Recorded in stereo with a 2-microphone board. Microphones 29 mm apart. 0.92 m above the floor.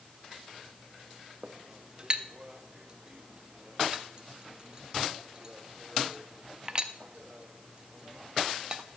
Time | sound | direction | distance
1.4 | a clink | 30° right (ahead or behind) | 0.6 m